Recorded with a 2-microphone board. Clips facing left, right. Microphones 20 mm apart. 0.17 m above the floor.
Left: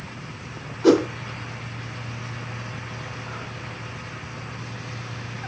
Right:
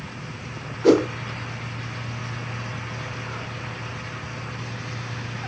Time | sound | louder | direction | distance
0.8 | a whoosh | even | 40° left (ahead or behind) | 2 m